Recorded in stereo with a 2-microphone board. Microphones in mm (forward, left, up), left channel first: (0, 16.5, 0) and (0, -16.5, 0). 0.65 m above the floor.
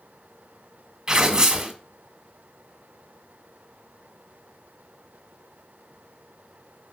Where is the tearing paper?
25° right (ahead or behind), 1.3 m.